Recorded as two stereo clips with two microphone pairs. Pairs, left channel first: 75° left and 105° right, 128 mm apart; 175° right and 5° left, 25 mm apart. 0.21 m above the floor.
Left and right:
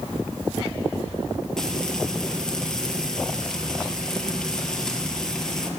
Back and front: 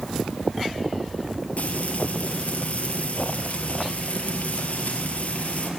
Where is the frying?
160° left, 4 m.